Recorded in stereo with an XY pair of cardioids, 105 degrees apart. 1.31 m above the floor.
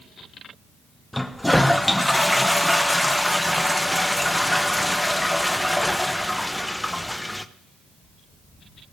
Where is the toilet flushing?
5° left, 0.9 m.